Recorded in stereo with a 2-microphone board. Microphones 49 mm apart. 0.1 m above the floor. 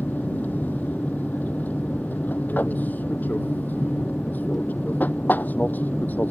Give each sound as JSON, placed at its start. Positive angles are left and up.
{"t": 0.0, "sound": "an aircraft", "side_deg": 40}